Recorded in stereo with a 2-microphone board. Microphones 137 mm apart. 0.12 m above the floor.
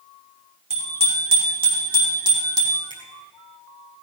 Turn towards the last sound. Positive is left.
turn(degrees=-60)  # may be behind; listen again after turning